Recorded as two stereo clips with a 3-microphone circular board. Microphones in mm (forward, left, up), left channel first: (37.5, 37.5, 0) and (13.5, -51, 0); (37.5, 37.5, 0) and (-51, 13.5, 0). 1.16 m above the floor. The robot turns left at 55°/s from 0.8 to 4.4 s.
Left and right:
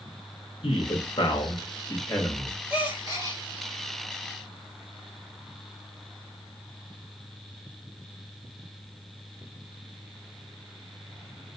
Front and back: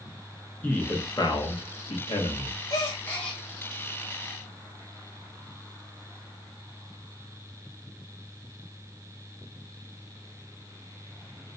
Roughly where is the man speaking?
Left.